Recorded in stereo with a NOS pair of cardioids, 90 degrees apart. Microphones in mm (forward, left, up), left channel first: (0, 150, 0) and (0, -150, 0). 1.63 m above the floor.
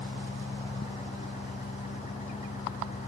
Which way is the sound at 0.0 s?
25° left.